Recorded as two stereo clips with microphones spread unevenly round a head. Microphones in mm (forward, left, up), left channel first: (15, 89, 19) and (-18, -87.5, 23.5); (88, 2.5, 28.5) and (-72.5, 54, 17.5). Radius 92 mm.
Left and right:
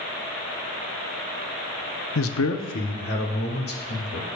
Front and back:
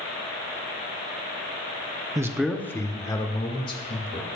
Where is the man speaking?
95° left, 0.7 m; by 4.2 s 40° left, 3 m.